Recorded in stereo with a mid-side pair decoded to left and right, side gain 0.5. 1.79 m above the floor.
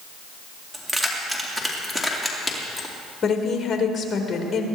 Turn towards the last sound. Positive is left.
turn(degrees=40)